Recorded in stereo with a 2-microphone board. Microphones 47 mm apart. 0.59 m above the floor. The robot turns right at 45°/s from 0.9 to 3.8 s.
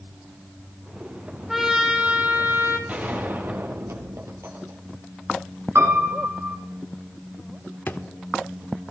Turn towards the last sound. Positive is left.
turn(degrees=50)  # may be behind; listen again after turning